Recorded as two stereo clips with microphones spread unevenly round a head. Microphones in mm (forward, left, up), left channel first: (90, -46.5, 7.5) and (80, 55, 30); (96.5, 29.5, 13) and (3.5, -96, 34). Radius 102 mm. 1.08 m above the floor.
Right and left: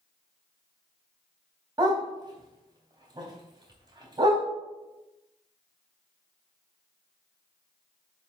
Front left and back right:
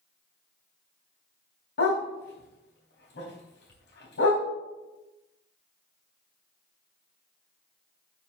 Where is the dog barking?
50° left, 3.5 m.